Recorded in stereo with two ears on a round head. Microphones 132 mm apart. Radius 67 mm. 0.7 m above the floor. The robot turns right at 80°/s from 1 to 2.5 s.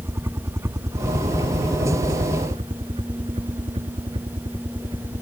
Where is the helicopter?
20° right (ahead or behind); by 5.2 s 30° right (ahead or behind).